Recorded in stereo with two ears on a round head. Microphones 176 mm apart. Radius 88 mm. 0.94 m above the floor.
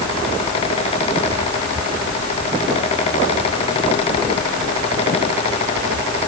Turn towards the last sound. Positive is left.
No sound to turn to.